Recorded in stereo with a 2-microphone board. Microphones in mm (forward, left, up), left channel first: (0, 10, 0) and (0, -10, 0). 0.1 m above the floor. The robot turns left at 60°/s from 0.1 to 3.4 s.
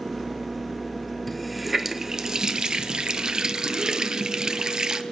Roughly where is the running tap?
Ahead.